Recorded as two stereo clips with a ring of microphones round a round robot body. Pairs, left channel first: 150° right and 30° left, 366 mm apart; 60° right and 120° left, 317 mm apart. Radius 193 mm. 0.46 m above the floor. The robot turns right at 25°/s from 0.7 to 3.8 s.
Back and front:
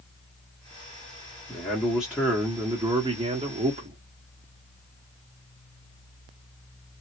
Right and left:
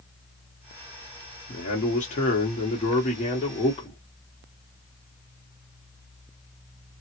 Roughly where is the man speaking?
Right.